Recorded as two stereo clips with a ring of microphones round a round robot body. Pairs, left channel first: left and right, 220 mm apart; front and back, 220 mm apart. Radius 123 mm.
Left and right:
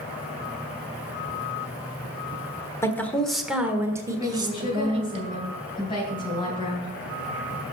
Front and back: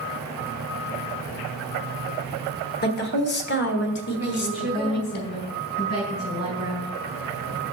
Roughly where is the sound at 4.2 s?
Ahead left.